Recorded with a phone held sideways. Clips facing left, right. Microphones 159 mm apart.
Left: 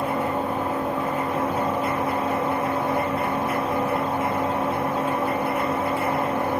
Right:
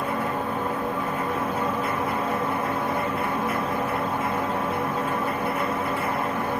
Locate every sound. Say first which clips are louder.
0.0 s a machine running: left 2 dB; 30° left (ahead or behind), 1.1 m